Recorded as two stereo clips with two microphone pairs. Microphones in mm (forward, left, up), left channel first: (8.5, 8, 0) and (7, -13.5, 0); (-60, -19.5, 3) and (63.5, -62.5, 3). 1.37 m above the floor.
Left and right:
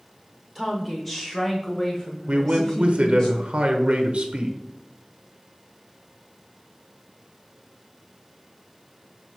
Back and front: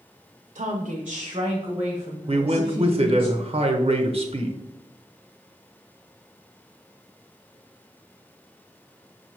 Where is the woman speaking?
5° left, 0.5 m; by 3.3 s 45° left, 1.7 m.